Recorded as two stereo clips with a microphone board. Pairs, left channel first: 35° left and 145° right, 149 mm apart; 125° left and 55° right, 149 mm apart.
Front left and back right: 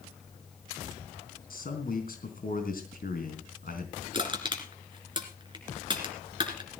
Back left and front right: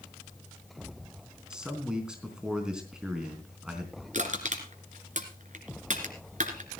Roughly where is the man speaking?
Ahead left.